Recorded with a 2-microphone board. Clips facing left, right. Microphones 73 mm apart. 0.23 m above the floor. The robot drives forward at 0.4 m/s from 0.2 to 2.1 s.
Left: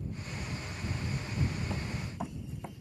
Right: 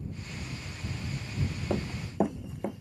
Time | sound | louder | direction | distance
1.7 | running footsteps | right 5 dB | 40° right (ahead or behind) | ?